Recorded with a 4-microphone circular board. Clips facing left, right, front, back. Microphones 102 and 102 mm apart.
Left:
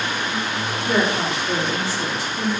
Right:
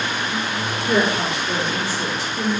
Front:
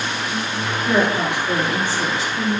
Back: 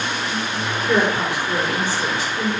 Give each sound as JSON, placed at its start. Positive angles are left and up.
{"t": 0.9, "sound": "a woman speaking", "azimuth_deg": 40, "distance_m": 3.5}